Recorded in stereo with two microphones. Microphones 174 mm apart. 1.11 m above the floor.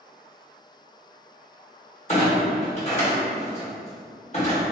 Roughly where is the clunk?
Left.